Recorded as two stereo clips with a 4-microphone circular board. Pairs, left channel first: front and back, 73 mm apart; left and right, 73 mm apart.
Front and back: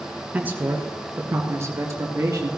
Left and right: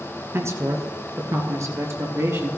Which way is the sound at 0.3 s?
125° right.